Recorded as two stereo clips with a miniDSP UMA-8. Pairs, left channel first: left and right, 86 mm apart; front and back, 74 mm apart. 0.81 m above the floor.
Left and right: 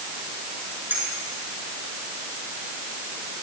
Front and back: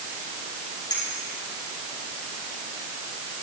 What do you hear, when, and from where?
0.9 s a clink: 20° right, 9 m